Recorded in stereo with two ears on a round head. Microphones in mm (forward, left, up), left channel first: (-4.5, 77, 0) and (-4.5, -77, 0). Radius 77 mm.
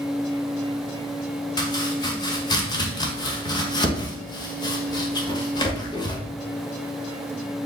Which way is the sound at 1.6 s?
25° left (ahead or behind).